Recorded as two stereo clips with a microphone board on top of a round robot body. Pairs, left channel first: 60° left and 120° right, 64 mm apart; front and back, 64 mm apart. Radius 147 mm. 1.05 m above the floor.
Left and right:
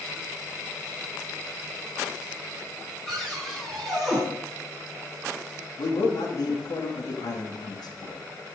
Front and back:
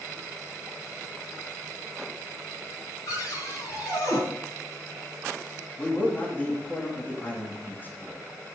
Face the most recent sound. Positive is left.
turn(degrees=65)